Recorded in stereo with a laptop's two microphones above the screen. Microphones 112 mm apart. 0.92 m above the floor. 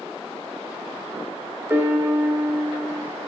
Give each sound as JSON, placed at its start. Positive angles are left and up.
{"t": 1.7, "sound": "a piano", "side_deg": -20, "distance_m": 0.9}